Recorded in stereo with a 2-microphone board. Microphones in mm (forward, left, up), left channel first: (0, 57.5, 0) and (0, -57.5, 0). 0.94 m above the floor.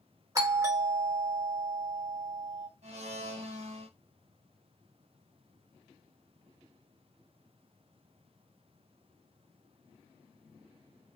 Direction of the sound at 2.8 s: 75° right (ahead or behind).